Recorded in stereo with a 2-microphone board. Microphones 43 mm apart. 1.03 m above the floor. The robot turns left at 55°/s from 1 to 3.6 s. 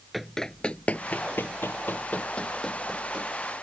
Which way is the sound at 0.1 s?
Centre (ahead or behind).